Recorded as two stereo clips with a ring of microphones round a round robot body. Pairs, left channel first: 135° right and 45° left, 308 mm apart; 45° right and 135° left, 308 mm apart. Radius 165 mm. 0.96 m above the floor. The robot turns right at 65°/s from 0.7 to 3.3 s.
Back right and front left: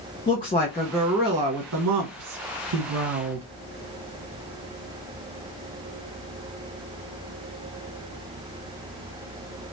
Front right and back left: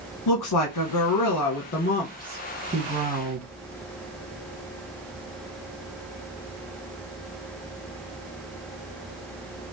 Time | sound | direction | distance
0.3 | a woman speaking | 60° right | 1.2 m